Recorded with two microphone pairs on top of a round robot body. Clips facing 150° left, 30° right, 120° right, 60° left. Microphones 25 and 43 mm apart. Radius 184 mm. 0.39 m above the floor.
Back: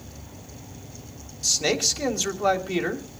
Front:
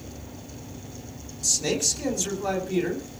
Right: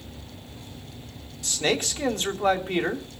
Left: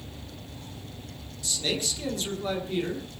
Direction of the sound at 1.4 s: 155° right.